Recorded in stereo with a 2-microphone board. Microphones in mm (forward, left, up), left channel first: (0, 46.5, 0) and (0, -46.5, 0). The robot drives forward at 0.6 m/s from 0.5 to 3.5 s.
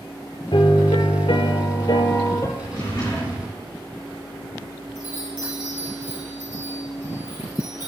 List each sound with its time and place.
0.5 s a piano: 70° left (ahead or behind), 0.7 m; by 2.5 s 35° left (ahead or behind), 1.1 m
2.6 s a drawer: 50° left (ahead or behind), 4.5 m; by 3.6 s 45° left (ahead or behind), 4.5 m
5.0 s a chime: 25° right (ahead or behind), 3 m